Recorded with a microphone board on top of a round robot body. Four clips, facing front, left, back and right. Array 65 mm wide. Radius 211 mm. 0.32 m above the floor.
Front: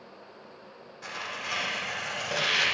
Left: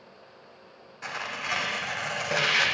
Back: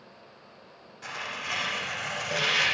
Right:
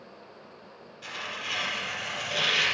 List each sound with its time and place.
1.0 s tearing paper: 90° left, 0.6 m